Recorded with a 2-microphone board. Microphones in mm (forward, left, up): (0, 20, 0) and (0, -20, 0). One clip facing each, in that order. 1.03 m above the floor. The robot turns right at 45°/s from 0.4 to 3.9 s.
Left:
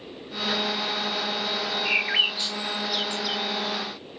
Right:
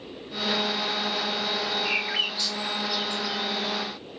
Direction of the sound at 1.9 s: 15° left (ahead or behind).